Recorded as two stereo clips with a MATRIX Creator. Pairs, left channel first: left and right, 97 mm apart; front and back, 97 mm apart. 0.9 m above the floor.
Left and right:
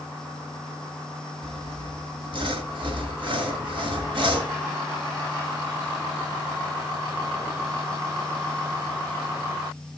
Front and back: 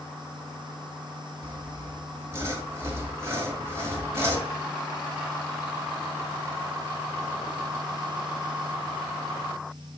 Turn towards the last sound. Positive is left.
turn(degrees=-120)